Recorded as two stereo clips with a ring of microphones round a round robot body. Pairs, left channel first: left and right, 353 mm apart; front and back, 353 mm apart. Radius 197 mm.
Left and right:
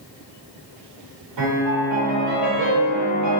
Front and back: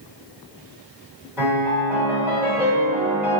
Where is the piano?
100° right, 1.5 m.